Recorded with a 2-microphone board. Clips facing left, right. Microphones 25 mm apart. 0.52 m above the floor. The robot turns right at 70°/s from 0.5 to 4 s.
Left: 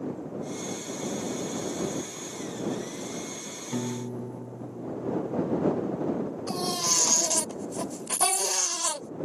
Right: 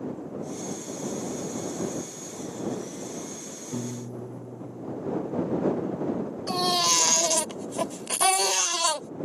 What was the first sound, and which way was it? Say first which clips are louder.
A piano: left 2 dB; 60° left (ahead or behind).